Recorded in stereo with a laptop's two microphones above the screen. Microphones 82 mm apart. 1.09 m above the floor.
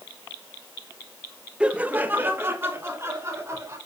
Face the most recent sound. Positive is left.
turn(degrees=-35)  # may be behind; listen again after turning